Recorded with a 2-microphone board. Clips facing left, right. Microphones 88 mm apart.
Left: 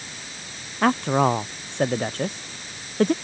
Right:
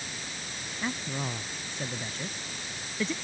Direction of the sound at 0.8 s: 75° left (ahead or behind).